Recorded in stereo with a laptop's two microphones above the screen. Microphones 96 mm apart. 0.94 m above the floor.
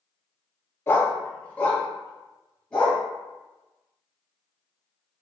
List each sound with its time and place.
0.9 s a dog barking: 25° left (ahead or behind), 0.6 m; by 3.0 s 10° left (ahead or behind), 1.7 m